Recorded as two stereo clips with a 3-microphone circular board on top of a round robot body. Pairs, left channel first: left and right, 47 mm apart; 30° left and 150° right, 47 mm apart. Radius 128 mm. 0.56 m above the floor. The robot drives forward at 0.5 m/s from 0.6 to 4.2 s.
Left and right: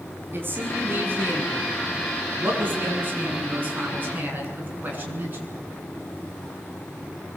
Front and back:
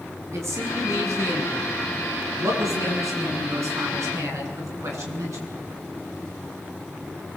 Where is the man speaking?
130° right, 6.5 m; by 5.5 s 140° right, 8 m.